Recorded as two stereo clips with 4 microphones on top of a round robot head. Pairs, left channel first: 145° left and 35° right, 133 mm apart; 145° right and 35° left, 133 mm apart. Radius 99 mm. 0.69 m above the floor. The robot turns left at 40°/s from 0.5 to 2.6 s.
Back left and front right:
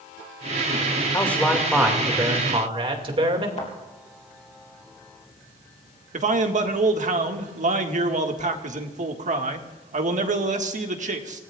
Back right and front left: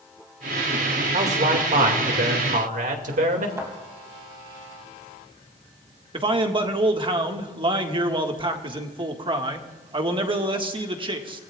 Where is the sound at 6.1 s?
15° right, 1.8 m.